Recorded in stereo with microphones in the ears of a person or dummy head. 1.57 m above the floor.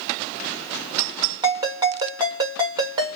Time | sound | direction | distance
1.4 | a ringtone | 20° right (ahead or behind) | 0.7 m